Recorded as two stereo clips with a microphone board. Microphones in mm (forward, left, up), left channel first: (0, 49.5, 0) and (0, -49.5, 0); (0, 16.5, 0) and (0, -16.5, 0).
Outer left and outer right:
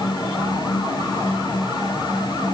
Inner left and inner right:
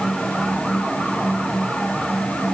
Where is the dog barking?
No dog barking in this recording.